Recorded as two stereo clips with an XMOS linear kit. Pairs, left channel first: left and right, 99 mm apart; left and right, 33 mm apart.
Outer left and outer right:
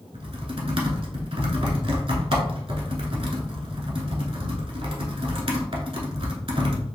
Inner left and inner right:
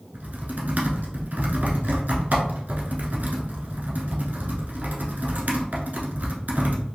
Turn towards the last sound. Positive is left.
turn(degrees=-70)  # may be behind; listen again after turning